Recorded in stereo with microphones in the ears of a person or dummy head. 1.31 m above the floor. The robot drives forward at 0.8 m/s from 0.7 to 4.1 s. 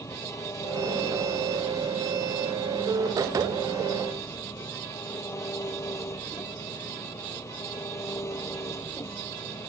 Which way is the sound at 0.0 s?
15° left (ahead or behind).